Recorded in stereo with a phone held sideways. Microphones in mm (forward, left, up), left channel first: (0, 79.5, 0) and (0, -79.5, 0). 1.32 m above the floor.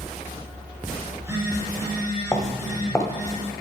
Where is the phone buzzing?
20° right (ahead or behind), 3 m.